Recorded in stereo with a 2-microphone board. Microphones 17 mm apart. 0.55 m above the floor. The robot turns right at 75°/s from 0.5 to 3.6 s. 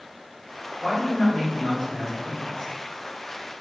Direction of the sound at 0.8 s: 30° right.